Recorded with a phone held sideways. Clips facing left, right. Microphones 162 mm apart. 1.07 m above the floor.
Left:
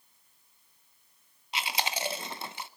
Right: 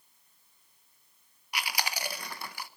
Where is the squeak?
I don't hear a squeak.